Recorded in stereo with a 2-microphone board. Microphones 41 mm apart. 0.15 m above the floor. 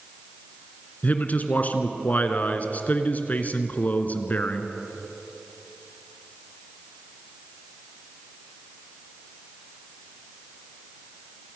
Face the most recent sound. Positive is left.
turn(degrees=45)  # may be behind; listen again after turning